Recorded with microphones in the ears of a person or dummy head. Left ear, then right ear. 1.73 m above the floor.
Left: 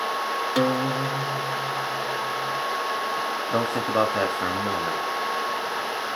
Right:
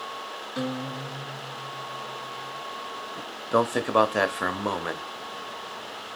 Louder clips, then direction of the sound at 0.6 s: Left 8 dB; 85° left.